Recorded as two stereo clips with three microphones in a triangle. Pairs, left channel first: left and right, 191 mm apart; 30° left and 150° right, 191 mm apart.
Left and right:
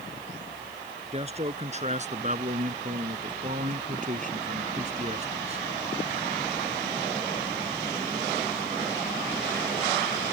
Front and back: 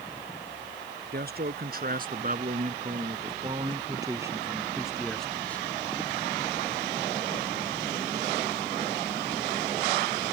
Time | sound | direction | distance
1.1 | a man speaking | 140° right | ?